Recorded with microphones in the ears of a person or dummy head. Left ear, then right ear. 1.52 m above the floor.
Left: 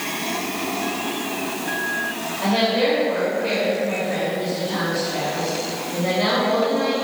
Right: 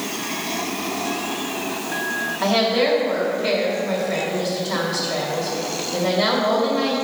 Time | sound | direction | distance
2.4 | a woman speaking | 45° right (ahead or behind) | 2.5 m